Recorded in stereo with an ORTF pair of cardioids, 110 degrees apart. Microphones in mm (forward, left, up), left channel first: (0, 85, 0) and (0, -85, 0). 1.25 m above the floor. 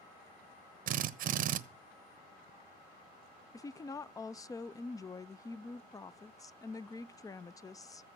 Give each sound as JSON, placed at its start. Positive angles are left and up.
{"t": 0.9, "sound": "a drill", "azimuth_deg": -55, "distance_m": 1.0}
{"t": 3.5, "sound": "a woman speaking", "azimuth_deg": 20, "distance_m": 0.5}